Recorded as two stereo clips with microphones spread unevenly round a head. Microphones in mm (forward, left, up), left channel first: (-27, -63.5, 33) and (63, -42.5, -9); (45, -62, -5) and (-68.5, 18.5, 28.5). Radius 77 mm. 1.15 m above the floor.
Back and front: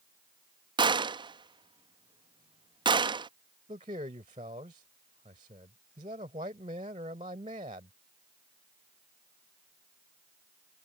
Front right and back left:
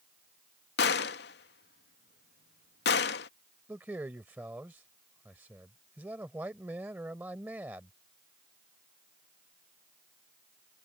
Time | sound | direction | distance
0.8 | a gunshot | 25° right | ?
3.7 | a man speaking | 65° left | ?